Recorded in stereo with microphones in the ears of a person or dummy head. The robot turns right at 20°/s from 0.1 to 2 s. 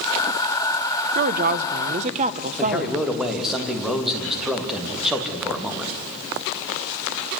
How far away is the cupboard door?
No cupboard door in this recording.